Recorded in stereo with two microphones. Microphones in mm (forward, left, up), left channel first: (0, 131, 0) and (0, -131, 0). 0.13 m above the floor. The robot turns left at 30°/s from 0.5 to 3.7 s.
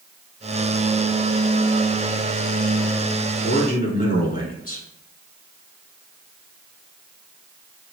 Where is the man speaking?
35° left (ahead or behind), 1.2 m.